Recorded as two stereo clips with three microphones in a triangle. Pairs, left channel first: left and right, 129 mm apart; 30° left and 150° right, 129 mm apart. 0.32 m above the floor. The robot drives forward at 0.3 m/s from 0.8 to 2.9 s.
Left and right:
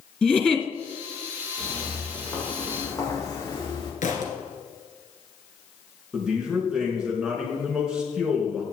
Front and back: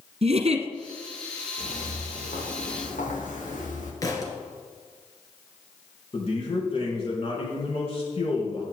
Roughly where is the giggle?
Behind.